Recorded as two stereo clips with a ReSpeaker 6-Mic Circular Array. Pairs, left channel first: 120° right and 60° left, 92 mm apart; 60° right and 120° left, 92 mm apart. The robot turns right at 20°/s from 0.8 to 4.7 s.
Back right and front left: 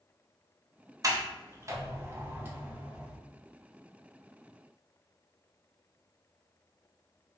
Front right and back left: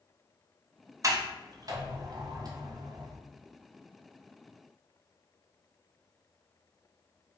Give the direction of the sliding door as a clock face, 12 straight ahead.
9 o'clock.